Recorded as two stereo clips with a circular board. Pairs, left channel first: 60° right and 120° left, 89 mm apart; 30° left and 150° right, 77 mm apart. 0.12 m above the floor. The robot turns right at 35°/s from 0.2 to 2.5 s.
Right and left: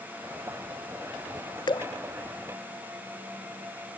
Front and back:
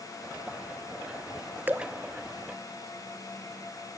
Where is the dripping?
85° right, 0.5 m; by 1.9 s 75° right, 0.5 m.